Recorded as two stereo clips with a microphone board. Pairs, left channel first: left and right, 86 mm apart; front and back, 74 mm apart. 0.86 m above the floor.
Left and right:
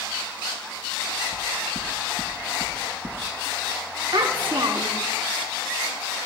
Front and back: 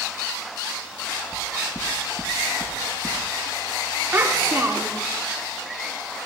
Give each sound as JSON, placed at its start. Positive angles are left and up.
{"t": 1.3, "sound": "knocking", "azimuth_deg": -70, "distance_m": 1.1}
{"t": 4.1, "sound": "a child speaking", "azimuth_deg": -115, "distance_m": 1.2}